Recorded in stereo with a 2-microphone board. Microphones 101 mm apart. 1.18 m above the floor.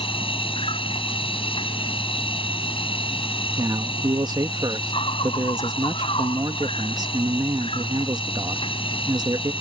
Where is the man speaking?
45° right (ahead or behind).